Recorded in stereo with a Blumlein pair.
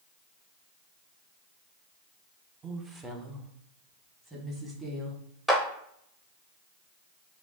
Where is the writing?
I don't hear writing.